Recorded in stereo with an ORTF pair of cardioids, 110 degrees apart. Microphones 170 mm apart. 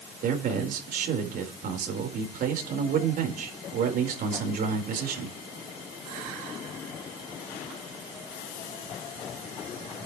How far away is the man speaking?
About 4.5 m.